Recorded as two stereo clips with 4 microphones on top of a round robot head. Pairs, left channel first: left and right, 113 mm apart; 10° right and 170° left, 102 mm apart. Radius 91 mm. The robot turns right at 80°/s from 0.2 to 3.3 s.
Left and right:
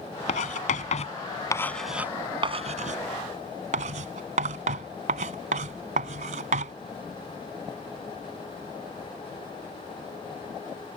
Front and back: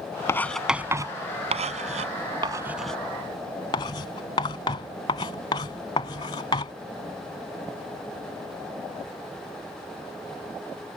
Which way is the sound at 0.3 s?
55° left.